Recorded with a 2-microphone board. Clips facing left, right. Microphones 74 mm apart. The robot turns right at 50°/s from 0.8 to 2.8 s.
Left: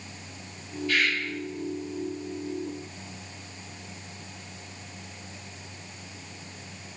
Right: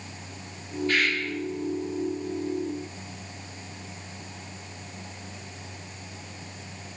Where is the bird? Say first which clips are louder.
Right 1 dB; 45° right (ahead or behind), 2.5 m; by 1.2 s 55° right (ahead or behind), 2.5 m.